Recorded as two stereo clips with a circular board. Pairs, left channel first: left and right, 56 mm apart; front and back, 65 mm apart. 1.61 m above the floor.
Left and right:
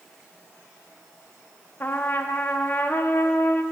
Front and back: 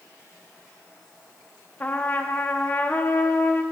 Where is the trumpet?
50° left, 0.6 m.